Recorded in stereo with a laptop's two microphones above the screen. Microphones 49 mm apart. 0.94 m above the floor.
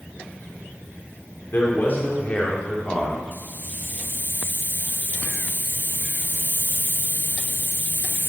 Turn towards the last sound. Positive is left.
turn(degrees=45)  # may be behind; listen again after turning